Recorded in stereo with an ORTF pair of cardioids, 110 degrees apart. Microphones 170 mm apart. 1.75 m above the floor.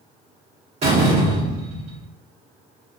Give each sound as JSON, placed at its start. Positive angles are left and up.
{"t": 0.8, "sound": "a door slam", "azimuth_deg": -35, "distance_m": 1.8}